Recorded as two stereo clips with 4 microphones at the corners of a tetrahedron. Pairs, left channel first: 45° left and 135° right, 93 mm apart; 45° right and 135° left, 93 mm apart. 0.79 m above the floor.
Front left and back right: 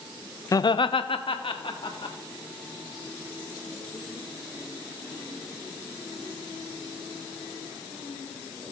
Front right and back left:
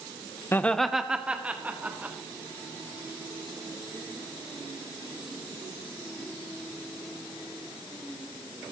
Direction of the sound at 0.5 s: 5° left.